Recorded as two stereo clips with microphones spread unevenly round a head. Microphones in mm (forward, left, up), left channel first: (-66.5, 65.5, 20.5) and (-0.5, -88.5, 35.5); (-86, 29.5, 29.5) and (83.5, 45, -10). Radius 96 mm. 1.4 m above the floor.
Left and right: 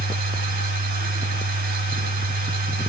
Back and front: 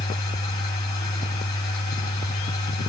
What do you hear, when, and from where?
0.0 s a machine running: 100° right, 4 m